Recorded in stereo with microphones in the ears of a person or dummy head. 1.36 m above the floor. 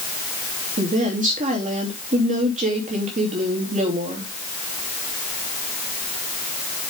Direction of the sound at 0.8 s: 40° right (ahead or behind).